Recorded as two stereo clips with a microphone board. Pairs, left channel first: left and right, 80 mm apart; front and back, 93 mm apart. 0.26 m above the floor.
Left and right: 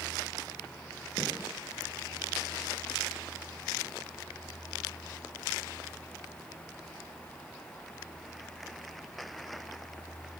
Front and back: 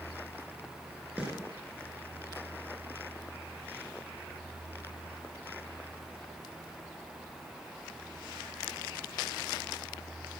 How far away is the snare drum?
About 4.5 m.